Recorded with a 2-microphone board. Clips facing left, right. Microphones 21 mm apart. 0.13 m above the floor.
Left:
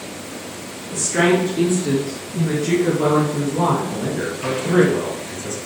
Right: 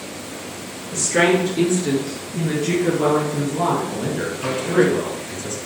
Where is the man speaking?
10° right (ahead or behind), 1.8 m.